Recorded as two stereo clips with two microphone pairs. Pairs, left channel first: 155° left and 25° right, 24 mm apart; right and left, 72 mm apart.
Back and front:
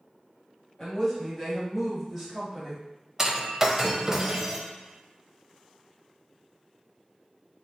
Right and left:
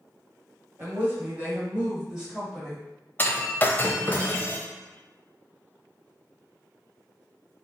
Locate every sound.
0.8 s a woman speaking: 110° left, 1.7 m; by 2.8 s 10° right, 1.6 m
3.2 s breaking glass: 65° right, 0.6 m